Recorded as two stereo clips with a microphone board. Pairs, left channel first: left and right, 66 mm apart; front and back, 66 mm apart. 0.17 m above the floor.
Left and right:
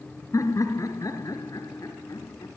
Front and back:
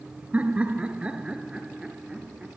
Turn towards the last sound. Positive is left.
turn(degrees=100)